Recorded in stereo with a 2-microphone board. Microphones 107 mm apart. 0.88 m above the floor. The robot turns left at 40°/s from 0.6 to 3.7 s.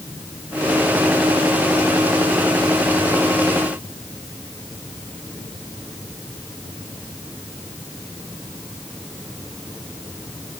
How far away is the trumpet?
No trumpet in this recording.